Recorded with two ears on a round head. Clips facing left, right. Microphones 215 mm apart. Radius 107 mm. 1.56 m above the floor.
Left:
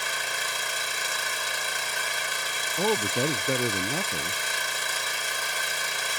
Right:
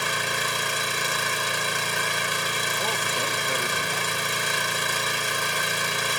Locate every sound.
0.0 s an engine running: 60° right (ahead or behind)
2.8 s a man speaking: 60° left (ahead or behind)